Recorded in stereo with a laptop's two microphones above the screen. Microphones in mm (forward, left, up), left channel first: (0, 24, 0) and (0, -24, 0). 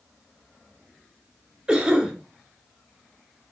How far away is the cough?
About 2 m.